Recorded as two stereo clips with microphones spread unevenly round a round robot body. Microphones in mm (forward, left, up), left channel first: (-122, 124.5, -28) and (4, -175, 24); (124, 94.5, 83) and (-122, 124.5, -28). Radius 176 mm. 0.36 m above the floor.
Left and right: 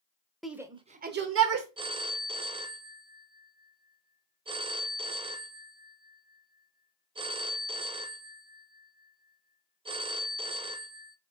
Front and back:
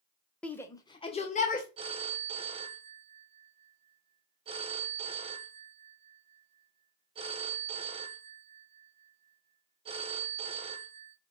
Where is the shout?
175° left, 0.9 m; by 1.7 s 80° right, 1.1 m.